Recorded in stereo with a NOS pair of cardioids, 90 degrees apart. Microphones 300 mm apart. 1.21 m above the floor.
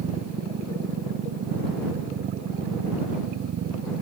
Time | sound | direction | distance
0.0 | a machine running | 55° right | ?